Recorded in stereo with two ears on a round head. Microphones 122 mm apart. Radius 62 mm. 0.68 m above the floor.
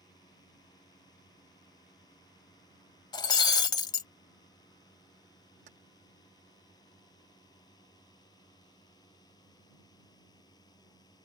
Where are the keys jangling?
55° right (ahead or behind).